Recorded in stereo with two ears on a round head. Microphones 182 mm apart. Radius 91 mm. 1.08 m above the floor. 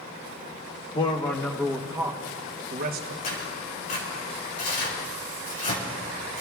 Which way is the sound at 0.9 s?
20° left (ahead or behind).